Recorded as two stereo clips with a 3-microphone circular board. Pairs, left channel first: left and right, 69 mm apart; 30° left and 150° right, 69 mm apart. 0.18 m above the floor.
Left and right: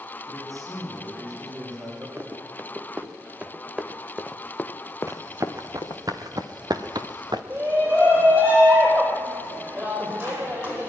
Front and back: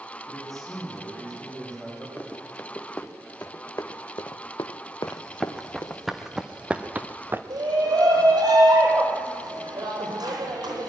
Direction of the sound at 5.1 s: 50° right.